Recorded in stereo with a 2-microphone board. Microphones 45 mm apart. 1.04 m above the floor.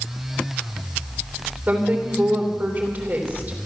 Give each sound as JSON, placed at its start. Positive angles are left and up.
{"t": 1.7, "sound": "a woman speaking", "side_deg": -45, "distance_m": 3.0}